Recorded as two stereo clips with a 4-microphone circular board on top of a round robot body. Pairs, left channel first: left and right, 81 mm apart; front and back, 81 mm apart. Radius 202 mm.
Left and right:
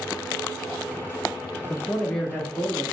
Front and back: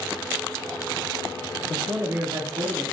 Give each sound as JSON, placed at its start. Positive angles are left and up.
{"t": 1.7, "sound": "a man speaking", "azimuth_deg": 110, "distance_m": 0.7}